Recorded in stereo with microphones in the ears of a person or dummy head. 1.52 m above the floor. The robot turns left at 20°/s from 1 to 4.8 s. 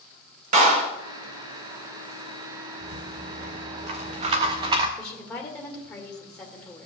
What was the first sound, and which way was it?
A clap, 50° right (ahead or behind).